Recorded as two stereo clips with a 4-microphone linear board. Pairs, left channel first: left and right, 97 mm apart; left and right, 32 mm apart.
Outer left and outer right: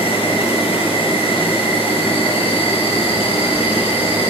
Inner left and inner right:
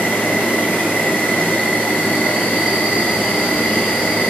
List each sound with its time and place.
0.0 s an insect: 75° left (ahead or behind), 6 m